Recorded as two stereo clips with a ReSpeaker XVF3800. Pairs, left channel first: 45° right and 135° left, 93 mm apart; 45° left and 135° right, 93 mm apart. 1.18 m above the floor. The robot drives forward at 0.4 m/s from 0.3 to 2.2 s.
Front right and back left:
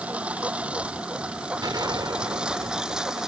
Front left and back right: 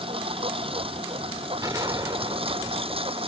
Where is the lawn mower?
150° right; by 3.3 s 140° right.